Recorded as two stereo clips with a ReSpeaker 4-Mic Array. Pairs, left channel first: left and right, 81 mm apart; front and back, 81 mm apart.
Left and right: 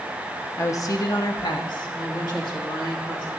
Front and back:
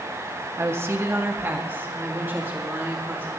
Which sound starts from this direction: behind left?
A woman speaking, at 0.6 s.